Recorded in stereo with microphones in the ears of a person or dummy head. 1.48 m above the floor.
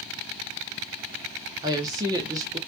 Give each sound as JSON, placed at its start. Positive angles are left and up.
{"t": 1.6, "sound": "a woman speaking", "side_deg": -20, "distance_m": 0.5}